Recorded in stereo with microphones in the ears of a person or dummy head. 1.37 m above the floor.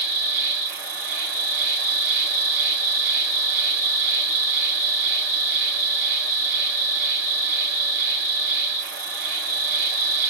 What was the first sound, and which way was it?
An insect, 60° right (ahead or behind).